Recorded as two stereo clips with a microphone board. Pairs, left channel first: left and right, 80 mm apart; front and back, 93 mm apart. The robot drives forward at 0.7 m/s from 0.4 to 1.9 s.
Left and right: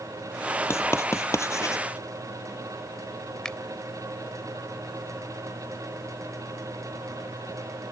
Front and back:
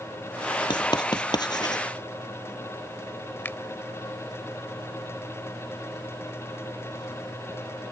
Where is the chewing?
No chewing in this recording.